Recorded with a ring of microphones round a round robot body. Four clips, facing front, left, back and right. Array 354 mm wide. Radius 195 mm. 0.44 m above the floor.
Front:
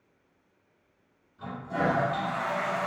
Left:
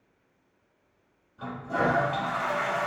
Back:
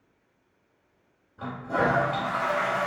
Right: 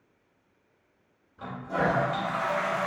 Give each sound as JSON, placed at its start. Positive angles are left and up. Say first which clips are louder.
{"t": 1.4, "sound": "a toilet flushing", "louder": "left 1 dB, back 3 dB", "azimuth_deg": -165, "distance_m": 2.0}